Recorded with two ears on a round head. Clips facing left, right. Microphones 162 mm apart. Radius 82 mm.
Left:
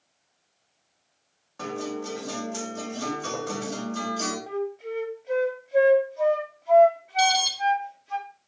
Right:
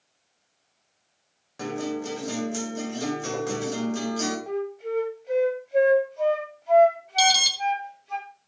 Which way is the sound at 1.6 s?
20° right (ahead or behind).